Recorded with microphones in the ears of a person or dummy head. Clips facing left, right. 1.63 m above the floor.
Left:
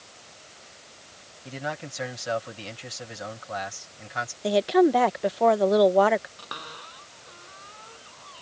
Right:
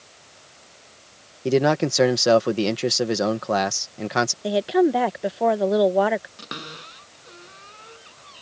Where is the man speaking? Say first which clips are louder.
Right 16 dB; 75° right (ahead or behind).